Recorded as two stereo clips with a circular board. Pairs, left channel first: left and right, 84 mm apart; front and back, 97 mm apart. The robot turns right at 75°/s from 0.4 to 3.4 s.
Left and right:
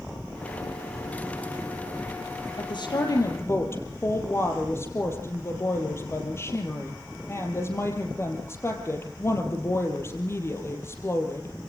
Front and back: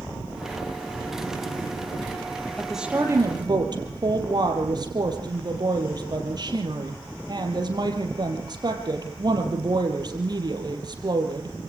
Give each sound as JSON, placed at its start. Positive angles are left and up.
{"t": 2.6, "sound": "a woman speaking", "azimuth_deg": 80, "distance_m": 3.5}